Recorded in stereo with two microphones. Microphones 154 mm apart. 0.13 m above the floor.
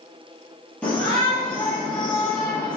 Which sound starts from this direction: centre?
A shout, at 0.8 s.